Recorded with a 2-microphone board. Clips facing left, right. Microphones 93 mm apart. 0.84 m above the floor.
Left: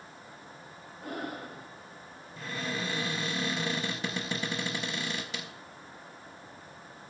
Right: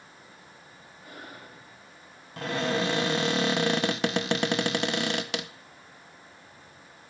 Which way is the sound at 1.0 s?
60° left (ahead or behind).